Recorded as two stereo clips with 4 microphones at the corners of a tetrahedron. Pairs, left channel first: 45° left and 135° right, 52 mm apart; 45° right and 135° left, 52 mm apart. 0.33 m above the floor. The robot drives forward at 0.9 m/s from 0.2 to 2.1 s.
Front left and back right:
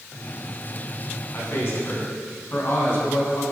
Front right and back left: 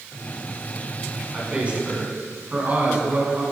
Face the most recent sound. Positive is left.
turn(degrees=80)